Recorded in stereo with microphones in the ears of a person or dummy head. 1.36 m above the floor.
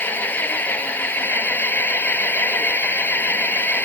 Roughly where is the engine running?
Centre.